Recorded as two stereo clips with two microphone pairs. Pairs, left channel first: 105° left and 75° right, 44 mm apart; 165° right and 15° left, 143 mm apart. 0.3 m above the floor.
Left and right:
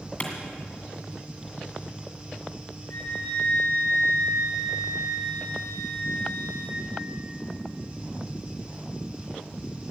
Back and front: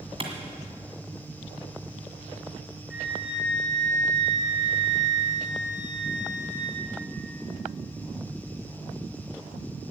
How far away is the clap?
About 2 m.